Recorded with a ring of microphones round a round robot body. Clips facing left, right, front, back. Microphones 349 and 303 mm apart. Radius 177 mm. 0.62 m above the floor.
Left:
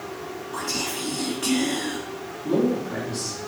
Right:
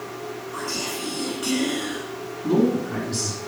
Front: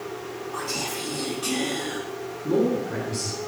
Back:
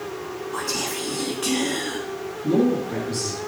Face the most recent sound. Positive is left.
turn(degrees=-125)